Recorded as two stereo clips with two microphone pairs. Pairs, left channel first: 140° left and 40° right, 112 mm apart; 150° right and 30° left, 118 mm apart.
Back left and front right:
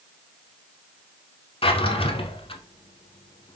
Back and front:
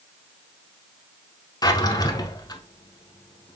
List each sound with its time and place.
1.6 s a drawer: 160° left, 0.7 m